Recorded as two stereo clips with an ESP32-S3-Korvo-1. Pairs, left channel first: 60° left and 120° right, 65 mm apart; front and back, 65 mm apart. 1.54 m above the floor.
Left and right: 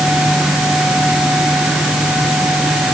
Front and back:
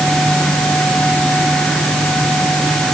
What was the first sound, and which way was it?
Only background noise.